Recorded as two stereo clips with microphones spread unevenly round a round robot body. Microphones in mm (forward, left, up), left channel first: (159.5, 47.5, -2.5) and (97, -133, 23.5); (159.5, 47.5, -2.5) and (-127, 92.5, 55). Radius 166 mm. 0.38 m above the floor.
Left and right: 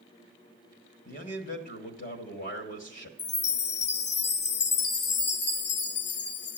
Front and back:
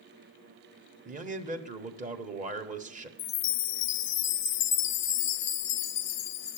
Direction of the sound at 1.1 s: 105° left.